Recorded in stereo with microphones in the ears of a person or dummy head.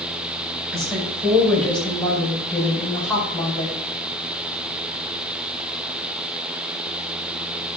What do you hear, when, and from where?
0.7 s a woman speaking: centre (ahead or behind), 6.5 m; by 3.8 s 10° left (ahead or behind), 5 m